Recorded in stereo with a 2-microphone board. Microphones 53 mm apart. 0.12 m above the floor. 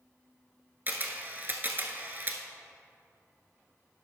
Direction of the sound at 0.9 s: 35° right (ahead or behind).